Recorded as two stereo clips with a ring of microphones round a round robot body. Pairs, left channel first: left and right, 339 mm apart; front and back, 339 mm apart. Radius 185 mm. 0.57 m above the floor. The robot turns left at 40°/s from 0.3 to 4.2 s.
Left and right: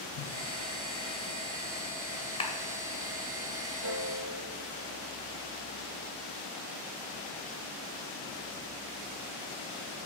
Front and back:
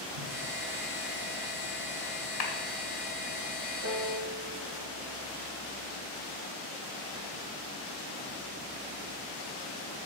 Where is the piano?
130° right, 5.5 m; by 5.2 s 145° right, 5.5 m.